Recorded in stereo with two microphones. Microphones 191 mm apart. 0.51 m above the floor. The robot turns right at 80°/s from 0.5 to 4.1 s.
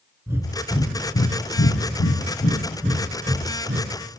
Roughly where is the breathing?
Centre.